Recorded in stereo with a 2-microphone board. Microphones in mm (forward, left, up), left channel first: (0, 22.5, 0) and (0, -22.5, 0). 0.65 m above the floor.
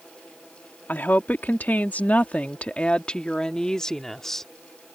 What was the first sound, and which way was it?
A woman speaking, 45° left (ahead or behind).